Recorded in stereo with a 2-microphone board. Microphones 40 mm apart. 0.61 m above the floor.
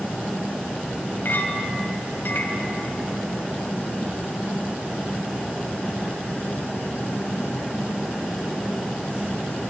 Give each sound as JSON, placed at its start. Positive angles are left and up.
{"t": 1.2, "sound": "a clink", "side_deg": 55, "distance_m": 2.5}